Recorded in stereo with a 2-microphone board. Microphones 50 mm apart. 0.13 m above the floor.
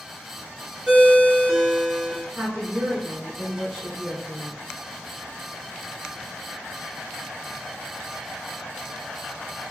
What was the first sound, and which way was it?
A ringtone, 15° right (ahead or behind).